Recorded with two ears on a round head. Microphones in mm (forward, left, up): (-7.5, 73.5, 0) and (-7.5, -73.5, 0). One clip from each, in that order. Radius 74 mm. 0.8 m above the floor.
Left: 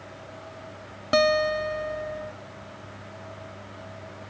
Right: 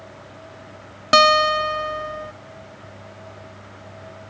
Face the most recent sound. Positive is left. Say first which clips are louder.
# right 7 dB
turn(degrees=-50)  # may be behind; listen again after turning